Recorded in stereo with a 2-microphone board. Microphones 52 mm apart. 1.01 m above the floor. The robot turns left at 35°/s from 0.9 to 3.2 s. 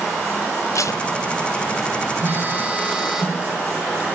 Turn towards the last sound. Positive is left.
turn(degrees=-170)